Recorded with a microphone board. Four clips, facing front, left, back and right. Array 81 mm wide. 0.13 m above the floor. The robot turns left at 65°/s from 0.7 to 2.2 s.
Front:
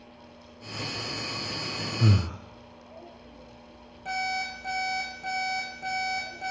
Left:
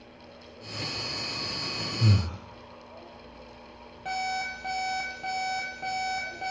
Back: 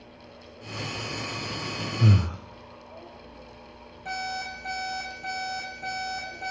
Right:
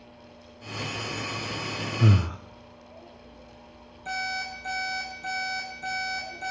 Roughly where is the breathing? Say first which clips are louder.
Right 4 dB, back 2 dB; right.